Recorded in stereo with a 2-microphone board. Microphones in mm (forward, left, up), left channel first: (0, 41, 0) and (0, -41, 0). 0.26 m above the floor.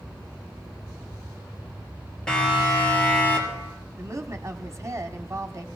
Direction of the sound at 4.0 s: 40° right (ahead or behind).